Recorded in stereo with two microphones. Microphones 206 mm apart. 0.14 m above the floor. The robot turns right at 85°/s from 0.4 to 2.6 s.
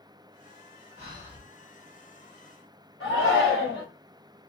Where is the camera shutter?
I don't hear a camera shutter.